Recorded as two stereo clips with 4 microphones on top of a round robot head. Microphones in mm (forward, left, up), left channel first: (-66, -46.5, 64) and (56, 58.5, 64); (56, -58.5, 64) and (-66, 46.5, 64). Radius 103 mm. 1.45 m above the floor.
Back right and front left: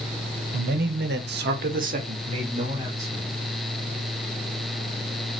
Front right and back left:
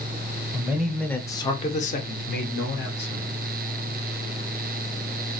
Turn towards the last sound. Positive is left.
turn(degrees=-35)